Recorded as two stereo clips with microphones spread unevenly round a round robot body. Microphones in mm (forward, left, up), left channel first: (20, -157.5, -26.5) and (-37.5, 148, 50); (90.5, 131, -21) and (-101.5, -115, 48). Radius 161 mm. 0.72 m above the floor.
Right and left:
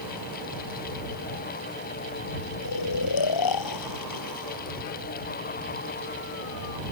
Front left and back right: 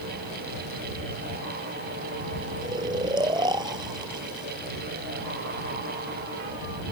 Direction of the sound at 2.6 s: 50° right.